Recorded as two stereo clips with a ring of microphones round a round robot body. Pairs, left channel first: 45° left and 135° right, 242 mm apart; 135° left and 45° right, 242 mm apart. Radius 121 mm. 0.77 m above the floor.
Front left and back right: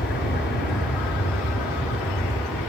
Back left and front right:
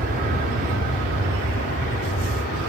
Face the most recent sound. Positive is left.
turn(degrees=5)